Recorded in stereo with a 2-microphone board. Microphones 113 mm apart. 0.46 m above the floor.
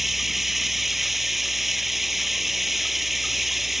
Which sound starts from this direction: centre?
Running water, at 0.0 s.